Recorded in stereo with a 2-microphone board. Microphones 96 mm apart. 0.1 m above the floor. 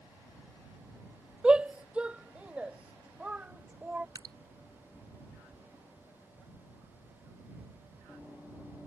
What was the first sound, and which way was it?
A shout, 10° right (ahead or behind).